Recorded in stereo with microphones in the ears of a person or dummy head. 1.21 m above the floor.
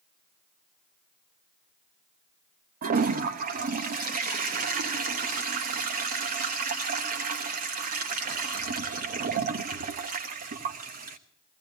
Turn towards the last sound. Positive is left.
turn(degrees=-50)  # may be behind; listen again after turning